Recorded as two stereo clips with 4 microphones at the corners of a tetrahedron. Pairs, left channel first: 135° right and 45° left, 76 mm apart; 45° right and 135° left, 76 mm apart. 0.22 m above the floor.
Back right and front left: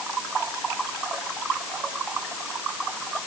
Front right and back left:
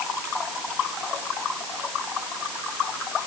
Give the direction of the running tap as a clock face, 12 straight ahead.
No running tap in this recording.